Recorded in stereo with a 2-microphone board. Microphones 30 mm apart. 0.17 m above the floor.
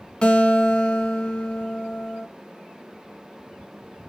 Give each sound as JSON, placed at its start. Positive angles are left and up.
{"t": 0.2, "sound": "a guitar", "side_deg": 30, "distance_m": 1.2}